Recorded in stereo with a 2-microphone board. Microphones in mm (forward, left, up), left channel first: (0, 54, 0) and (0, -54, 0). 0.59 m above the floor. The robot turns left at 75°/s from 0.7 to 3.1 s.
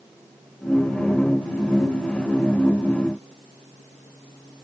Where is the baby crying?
No baby crying in this recording.